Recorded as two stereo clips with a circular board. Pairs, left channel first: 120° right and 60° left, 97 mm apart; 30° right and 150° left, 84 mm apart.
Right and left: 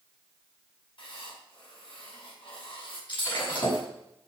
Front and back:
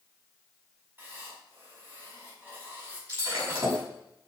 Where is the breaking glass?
155° right, 6 m.